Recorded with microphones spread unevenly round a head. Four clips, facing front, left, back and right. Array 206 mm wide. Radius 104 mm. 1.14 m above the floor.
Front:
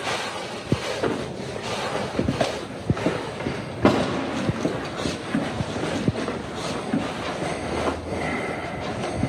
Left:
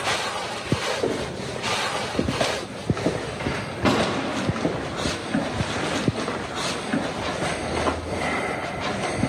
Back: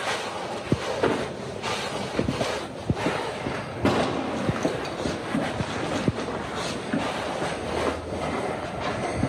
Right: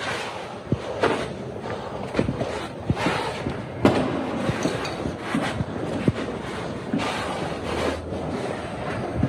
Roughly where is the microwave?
Ahead right.